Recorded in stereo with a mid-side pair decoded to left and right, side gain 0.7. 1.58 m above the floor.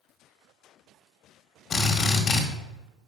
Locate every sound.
1.7 s a drill: 40° left, 1.7 m